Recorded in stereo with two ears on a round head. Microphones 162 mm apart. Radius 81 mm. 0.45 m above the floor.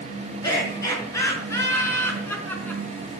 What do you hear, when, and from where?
0.4 s laughter: 20° left (ahead or behind), 5.5 m; by 2.8 s 10° left (ahead or behind), 4 m